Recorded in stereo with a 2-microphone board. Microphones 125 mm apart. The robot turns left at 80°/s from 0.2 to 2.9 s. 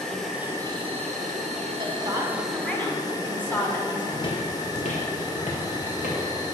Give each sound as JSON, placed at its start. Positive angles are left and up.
{"t": 0.0, "sound": "an insect", "azimuth_deg": 5, "distance_m": 1.2}
{"t": 1.8, "sound": "a woman speaking", "azimuth_deg": -115, "distance_m": 1.2}
{"t": 4.1, "sound": "footsteps", "side_deg": 30, "distance_m": 0.7}